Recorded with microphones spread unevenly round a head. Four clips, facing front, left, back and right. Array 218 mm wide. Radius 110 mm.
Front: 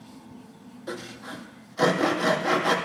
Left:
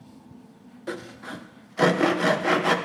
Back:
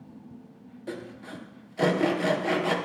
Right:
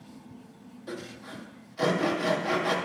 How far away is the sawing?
About 0.7 m.